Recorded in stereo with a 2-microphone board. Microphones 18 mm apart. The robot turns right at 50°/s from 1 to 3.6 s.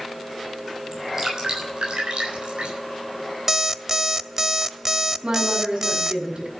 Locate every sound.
0.9 s dripping: 20° right (ahead or behind), 8.5 m; by 2.7 s 75° right (ahead or behind), 8.5 m
3.5 s an alarm clock: 20° right (ahead or behind), 0.5 m; by 6.2 s 25° right (ahead or behind), 0.5 m
5.2 s a woman speaking: 55° right (ahead or behind), 7 m